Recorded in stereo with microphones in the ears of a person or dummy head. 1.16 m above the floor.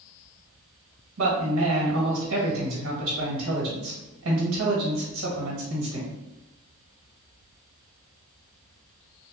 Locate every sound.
1.2 s a man speaking: 85° right, 1.4 m